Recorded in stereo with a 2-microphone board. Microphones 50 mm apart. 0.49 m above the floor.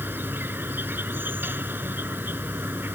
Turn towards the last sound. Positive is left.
turn(degrees=-45)  # may be behind; listen again after turning